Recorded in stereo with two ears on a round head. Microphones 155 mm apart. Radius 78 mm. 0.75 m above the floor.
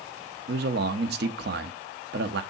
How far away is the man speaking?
About 1.0 m.